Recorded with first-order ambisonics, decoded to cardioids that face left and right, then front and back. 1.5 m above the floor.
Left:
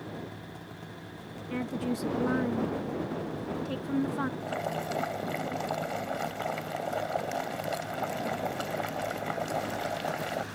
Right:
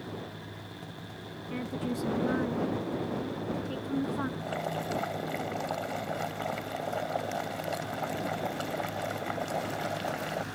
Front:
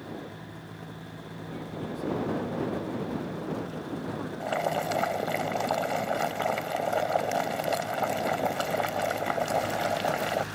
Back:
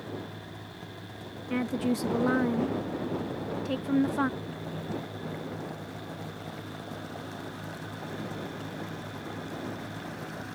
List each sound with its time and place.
1.5 s a woman speaking: 170° left
4.4 s boiling: 5° left